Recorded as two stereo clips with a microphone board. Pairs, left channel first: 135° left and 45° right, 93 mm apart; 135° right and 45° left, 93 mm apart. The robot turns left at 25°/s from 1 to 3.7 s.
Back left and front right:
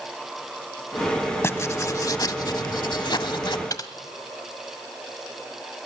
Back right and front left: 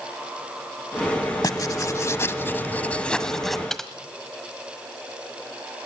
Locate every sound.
1.4 s writing: 170° right, 0.9 m; by 3.6 s 135° left, 0.9 m
3.7 s typing on a keyboard: 140° left, 1.4 m